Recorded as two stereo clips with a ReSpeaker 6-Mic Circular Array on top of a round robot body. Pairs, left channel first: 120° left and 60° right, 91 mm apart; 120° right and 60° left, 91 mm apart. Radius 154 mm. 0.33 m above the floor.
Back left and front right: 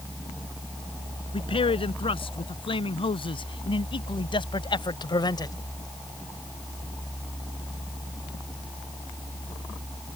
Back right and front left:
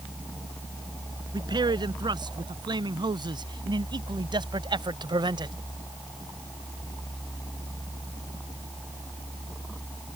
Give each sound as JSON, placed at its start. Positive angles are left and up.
{"t": 1.3, "sound": "a man speaking", "azimuth_deg": 100}